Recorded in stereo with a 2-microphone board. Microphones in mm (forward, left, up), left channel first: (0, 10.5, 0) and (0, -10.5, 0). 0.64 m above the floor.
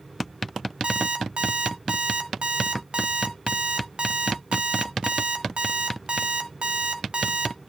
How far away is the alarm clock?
About 1.6 m.